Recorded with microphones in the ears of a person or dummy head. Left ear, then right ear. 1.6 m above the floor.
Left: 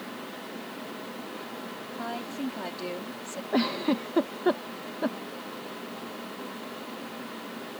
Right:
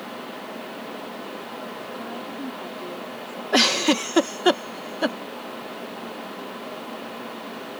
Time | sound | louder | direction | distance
2.0 | a woman speaking | right 1 dB | 35° left (ahead or behind) | ?
3.5 | a giggle | right 9 dB | 70° right (ahead or behind) | ?